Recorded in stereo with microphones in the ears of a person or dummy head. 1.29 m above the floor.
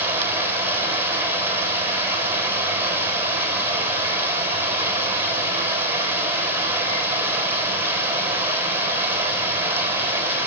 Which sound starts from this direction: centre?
Running water, at 0.0 s.